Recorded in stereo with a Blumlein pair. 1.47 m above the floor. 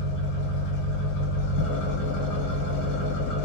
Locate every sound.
0.0 s an engine running: 45° left, 1.3 m